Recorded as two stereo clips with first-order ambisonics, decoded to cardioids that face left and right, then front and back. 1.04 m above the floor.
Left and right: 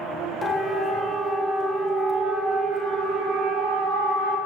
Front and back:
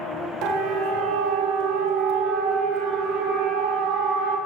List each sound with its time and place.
0.4 s a siren: 160° left, 3 m; by 4.4 s 140° right, 6.5 m